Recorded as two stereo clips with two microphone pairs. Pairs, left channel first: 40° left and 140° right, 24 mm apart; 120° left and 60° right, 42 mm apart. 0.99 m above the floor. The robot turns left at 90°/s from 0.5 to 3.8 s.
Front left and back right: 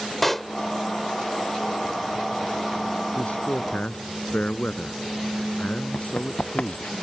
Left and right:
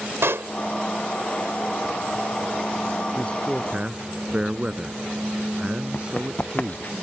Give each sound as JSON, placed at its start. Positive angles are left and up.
{"t": 0.2, "sound": "a pop", "azimuth_deg": -40}
{"t": 3.1, "sound": "a man speaking", "azimuth_deg": 65}
{"t": 5.9, "sound": "running footsteps", "azimuth_deg": 70}